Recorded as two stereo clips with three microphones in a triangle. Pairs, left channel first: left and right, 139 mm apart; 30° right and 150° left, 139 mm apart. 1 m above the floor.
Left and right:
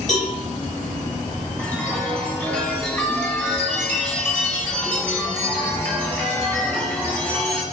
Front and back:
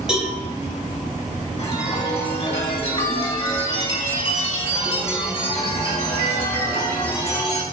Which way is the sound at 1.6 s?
15° left.